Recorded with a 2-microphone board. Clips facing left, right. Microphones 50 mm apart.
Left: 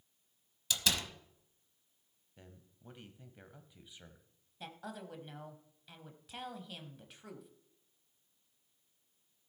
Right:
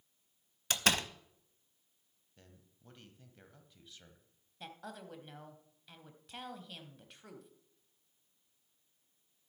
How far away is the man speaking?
About 1.3 m.